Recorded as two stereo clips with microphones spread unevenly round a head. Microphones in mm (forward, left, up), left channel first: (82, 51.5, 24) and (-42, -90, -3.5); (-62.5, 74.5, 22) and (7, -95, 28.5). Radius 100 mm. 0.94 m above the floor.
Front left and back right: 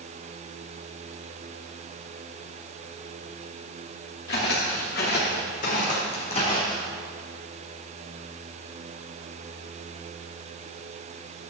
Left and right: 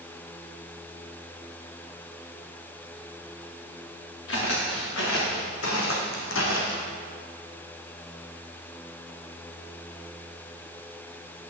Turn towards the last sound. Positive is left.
turn(degrees=115)